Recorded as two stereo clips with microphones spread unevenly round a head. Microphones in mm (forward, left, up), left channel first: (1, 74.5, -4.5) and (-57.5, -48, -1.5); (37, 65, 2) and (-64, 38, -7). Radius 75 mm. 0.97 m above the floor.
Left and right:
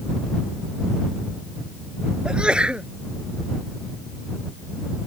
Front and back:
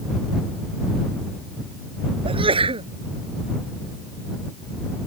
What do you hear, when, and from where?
2.2 s a sneeze: 160° left